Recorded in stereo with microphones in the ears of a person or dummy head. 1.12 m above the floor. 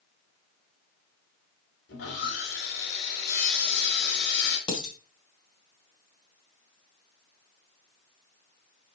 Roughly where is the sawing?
Left.